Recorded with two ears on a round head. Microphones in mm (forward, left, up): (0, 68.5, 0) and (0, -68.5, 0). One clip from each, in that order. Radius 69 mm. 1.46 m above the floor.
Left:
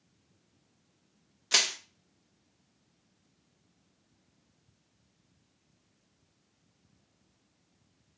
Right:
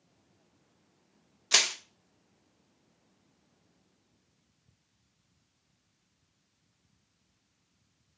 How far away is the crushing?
About 0.7 m.